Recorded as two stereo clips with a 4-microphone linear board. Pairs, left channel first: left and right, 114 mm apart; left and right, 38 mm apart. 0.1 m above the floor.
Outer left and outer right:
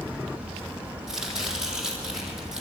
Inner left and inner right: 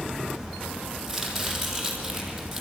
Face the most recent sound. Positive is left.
turn(degrees=-5)  # may be behind; listen again after turning